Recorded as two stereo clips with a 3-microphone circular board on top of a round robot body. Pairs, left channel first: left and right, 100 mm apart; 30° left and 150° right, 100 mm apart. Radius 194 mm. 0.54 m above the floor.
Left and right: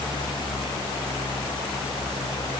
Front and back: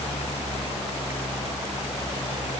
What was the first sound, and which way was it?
Only background noise.